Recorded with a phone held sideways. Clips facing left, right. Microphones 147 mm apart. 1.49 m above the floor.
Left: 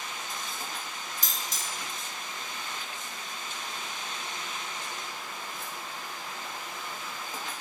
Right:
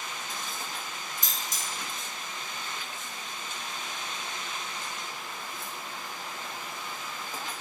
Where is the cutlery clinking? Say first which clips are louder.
Even; 50° right (ahead or behind), 1.3 m.